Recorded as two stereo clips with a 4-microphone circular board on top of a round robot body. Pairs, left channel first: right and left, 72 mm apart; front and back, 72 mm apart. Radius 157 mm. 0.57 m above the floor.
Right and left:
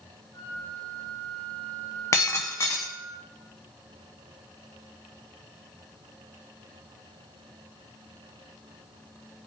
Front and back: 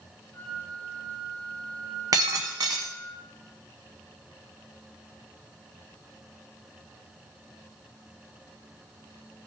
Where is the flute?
70° right, 5.5 m.